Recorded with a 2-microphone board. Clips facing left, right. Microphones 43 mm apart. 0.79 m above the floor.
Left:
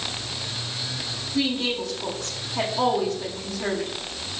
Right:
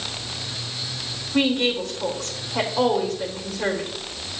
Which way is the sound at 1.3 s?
55° right (ahead or behind).